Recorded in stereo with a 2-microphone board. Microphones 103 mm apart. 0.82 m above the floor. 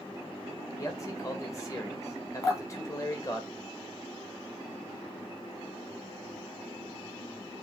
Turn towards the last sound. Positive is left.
turn(degrees=30)  # may be behind; listen again after turning